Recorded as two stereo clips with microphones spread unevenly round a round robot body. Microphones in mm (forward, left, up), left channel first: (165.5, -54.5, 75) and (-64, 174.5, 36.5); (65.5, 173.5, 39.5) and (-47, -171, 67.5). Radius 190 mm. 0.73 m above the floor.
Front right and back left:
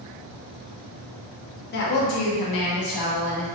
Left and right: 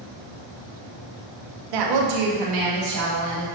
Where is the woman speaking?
105° right, 0.7 m; by 3.5 s 65° right, 1.9 m.